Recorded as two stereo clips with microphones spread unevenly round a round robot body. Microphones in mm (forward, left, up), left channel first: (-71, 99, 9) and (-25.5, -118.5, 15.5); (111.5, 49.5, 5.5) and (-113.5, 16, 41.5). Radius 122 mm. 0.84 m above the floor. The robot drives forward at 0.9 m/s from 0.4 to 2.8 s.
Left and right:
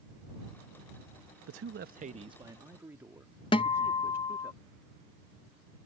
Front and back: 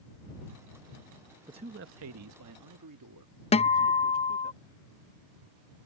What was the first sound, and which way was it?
A man speaking, 90° right.